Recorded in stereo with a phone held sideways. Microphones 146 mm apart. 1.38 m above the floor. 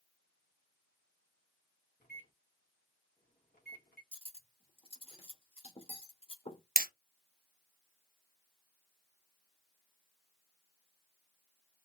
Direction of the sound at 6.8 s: 75° right (ahead or behind).